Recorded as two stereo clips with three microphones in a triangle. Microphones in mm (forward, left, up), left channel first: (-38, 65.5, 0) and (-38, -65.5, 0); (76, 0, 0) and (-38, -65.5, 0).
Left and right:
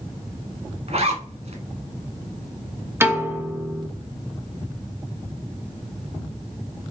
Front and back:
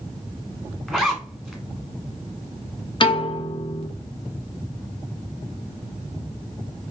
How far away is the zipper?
About 1.0 m.